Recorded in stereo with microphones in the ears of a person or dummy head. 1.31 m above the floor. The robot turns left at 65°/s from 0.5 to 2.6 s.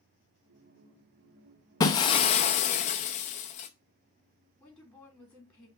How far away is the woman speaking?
About 3 m.